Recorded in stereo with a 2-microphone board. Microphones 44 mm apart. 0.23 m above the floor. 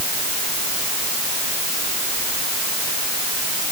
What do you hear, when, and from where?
Only background noise.